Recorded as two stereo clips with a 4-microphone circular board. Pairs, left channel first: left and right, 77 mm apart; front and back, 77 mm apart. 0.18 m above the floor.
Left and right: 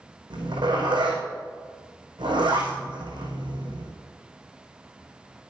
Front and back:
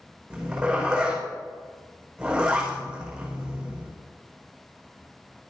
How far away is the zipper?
About 5.5 m.